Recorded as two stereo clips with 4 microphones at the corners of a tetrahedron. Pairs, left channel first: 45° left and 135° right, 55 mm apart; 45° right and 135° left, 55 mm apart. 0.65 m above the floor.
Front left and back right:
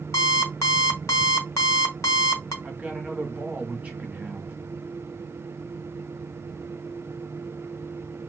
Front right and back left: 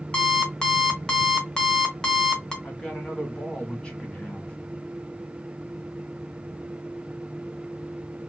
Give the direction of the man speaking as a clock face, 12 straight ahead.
3 o'clock.